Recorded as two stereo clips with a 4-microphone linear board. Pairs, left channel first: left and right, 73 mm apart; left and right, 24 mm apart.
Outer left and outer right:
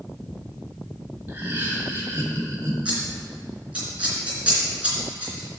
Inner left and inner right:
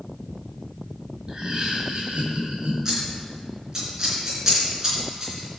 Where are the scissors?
20° right (ahead or behind), 3 m.